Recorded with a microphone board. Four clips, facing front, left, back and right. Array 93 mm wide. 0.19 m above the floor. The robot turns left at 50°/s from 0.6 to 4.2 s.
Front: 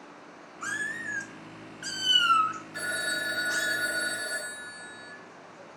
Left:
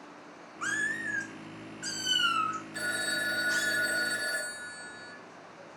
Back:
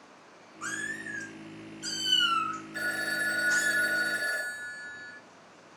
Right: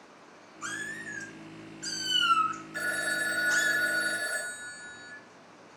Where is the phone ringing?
115° right, 1.1 m; by 5.1 s 170° left, 1.1 m.